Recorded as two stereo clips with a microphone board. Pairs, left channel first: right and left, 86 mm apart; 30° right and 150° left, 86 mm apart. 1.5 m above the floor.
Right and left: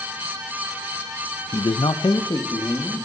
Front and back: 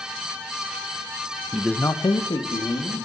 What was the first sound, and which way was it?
A man speaking, 140° right.